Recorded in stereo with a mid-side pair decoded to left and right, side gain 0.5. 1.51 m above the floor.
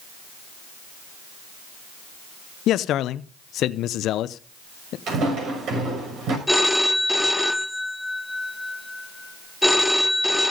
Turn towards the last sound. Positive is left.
turn(degrees=10)